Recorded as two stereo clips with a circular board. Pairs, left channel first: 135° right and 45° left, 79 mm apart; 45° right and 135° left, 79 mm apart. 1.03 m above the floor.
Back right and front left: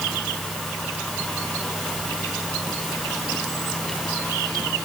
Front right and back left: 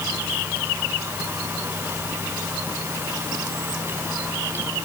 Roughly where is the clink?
No clink in this recording.